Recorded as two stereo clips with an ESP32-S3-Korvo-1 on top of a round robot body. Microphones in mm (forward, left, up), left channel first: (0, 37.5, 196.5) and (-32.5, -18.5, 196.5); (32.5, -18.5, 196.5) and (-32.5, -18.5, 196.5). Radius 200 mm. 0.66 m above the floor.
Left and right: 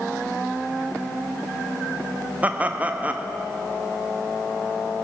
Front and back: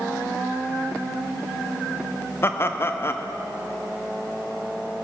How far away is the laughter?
About 1.4 m.